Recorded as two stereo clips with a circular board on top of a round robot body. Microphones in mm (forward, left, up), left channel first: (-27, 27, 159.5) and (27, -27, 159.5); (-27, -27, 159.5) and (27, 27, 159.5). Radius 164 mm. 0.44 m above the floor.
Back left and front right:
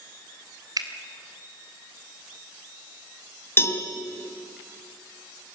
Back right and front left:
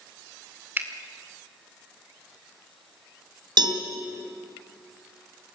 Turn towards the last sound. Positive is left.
turn(degrees=75)